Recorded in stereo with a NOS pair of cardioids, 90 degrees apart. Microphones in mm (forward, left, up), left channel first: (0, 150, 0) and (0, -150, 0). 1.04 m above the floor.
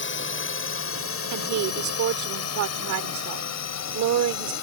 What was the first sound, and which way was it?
A drone, 40° left.